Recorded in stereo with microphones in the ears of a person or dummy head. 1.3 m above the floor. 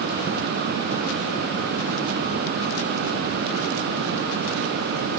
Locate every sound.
Only background noise.